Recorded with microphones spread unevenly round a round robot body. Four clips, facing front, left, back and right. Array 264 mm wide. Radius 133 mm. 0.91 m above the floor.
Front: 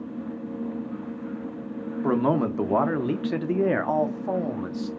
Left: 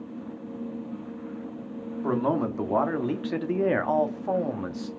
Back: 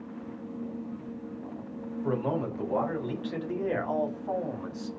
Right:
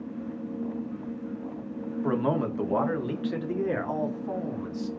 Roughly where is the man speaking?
Ahead.